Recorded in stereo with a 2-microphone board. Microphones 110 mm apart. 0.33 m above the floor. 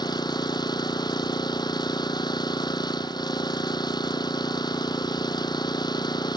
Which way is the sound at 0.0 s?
40° left (ahead or behind).